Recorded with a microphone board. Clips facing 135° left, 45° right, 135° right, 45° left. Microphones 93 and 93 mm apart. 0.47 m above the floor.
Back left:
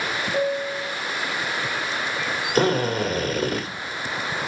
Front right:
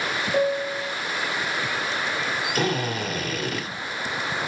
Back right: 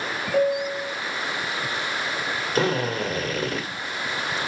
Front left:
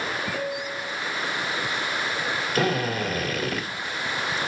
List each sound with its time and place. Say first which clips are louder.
0.3 s a piano: front right 2 dB, back right 8 dB; 115° right, 1.0 m
2.5 s a drill: back left 7 dB, back right 2 dB; 170° left, 2 m